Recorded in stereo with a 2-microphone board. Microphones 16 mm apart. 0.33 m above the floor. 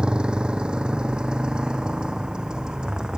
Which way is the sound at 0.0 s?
75° right (ahead or behind).